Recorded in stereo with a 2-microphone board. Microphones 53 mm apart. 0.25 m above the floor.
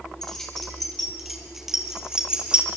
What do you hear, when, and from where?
0.2 s keys jangling: 10° left (ahead or behind), 5 m; by 2.7 s 20° right (ahead or behind), 4.5 m